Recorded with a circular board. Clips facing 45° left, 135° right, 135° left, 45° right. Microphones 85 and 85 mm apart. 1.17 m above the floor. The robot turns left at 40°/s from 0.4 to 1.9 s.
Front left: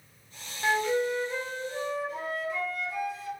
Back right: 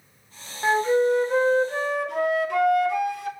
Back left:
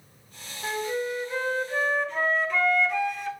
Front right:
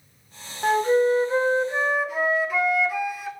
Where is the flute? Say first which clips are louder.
Back right 6 dB, front right 10 dB; 75° right, 0.6 m; by 3.3 s 125° right, 0.6 m.